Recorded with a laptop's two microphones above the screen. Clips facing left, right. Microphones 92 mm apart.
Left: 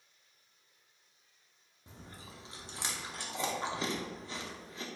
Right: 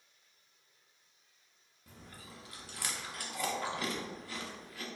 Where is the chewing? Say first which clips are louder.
Left 1 dB; 25° left (ahead or behind), 0.6 m.